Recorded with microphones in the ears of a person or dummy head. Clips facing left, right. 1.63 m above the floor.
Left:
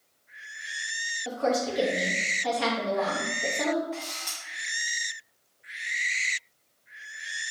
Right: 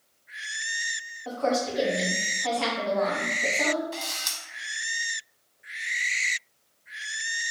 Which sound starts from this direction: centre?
A woman speaking, at 1.2 s.